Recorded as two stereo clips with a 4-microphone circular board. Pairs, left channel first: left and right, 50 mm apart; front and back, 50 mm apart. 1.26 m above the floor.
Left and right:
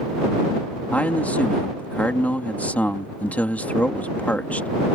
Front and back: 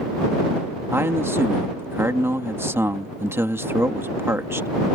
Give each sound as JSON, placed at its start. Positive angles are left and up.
{"t": 0.9, "sound": "a man speaking", "azimuth_deg": 150}